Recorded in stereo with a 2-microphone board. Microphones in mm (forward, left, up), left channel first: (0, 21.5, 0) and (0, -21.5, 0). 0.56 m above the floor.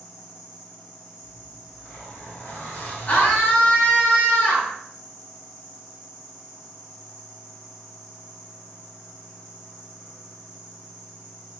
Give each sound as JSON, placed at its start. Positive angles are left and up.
{"t": 0.0, "sound": "an insect", "side_deg": -5, "distance_m": 1.1}
{"t": 1.2, "sound": "a zipper", "side_deg": 70, "distance_m": 1.3}
{"t": 3.1, "sound": "a scream", "side_deg": 45, "distance_m": 1.0}